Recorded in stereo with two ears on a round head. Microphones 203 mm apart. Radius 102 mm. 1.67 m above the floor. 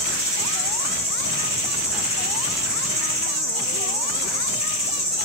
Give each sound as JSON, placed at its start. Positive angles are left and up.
{"t": 0.0, "sound": "an insect", "side_deg": -30, "distance_m": 3.0}